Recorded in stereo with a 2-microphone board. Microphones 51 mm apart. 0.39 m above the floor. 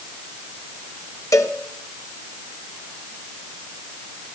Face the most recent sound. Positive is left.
turn(degrees=85)